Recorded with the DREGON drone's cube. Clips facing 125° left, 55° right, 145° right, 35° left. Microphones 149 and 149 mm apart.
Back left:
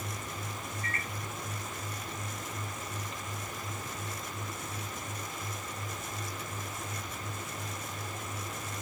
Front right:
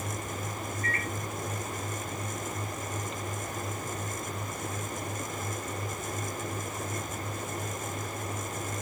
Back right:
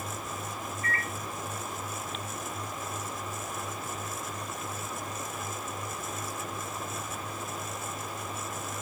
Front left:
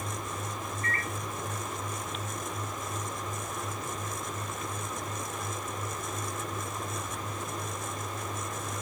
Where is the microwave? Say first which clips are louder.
Front right 5 dB, back right 1 dB; 75° left, 1.4 m.